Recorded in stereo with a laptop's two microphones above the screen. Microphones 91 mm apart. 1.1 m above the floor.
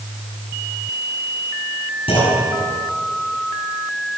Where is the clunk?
85° left, 6.5 m.